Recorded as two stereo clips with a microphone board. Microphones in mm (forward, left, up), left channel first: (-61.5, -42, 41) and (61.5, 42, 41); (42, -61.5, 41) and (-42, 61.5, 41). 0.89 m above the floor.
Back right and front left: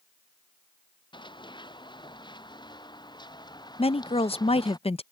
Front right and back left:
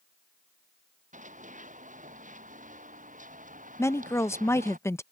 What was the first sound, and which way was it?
Running footsteps, 155° left.